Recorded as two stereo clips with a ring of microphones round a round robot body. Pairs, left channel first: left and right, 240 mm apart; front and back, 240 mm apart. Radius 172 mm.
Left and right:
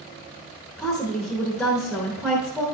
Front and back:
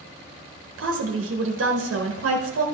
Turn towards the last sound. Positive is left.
turn(degrees=180)